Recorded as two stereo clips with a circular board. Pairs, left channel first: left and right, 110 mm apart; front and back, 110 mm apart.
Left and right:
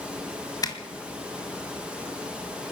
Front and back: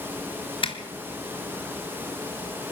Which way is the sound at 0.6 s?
35° left.